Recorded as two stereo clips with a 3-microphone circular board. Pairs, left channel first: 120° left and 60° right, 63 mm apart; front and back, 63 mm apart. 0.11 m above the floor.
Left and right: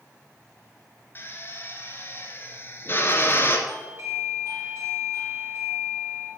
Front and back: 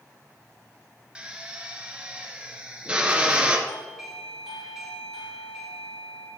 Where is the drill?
120° left, 1.7 m.